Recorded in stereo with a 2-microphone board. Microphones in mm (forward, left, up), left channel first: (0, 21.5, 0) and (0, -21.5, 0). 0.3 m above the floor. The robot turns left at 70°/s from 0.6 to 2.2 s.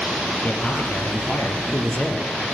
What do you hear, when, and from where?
0.4 s a man speaking: 135° left, 5 m; by 2.3 s 20° left, 5 m